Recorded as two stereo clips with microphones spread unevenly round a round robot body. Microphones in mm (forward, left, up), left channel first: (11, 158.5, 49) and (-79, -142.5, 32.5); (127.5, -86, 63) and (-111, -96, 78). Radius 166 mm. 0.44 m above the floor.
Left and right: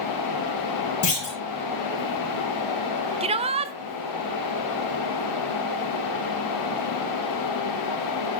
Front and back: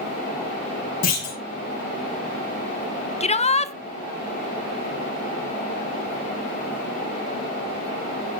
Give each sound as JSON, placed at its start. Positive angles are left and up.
{"t": 1.0, "sound": "a clunk", "azimuth_deg": 40, "distance_m": 6.0}
{"t": 3.2, "sound": "a shout", "azimuth_deg": -45, "distance_m": 1.1}